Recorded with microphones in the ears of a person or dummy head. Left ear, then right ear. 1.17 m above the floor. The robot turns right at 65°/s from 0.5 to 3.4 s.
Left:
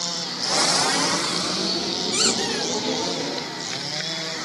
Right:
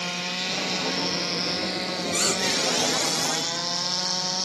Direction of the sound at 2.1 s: 45° left.